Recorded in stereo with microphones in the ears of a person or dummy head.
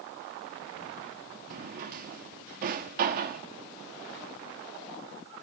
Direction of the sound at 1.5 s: 50° right (ahead or behind).